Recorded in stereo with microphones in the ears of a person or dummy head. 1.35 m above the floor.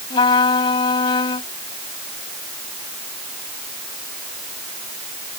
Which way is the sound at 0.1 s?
35° left (ahead or behind).